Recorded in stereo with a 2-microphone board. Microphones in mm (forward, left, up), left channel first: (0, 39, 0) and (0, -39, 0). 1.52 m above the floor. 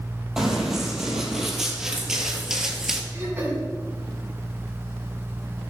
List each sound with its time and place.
0.4 s running footsteps: 5° right (ahead or behind), 2.5 m
3.1 s throat clearing: 25° right (ahead or behind), 4 m